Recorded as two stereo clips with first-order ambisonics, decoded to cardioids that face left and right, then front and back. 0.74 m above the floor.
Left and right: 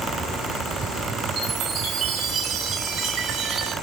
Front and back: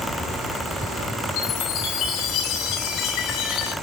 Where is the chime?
40° right, 3.5 m.